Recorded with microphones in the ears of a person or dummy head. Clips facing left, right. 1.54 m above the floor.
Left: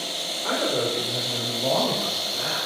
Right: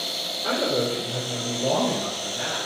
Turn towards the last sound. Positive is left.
turn(degrees=-30)  # may be behind; listen again after turning